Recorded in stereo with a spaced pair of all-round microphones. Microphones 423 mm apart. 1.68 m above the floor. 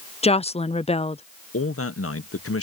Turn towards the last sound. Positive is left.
turn(degrees=30)  # may be behind; listen again after turning